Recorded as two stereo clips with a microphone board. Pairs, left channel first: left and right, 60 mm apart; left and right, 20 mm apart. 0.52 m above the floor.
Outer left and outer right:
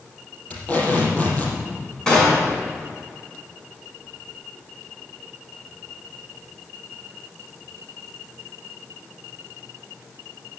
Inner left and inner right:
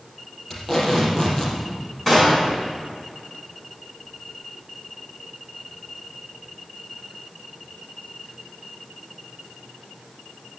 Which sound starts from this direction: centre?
A gunshot, at 2.1 s.